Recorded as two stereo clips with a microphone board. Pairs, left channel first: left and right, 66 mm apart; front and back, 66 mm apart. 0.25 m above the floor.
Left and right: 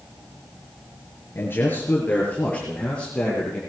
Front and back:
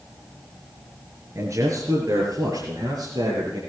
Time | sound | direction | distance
1.4 | a man speaking | 145° left | 4 m